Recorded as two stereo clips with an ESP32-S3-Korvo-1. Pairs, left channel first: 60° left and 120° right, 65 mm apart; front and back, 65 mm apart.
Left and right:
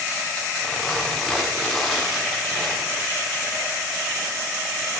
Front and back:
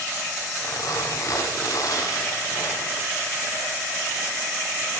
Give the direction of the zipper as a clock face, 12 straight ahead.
1 o'clock.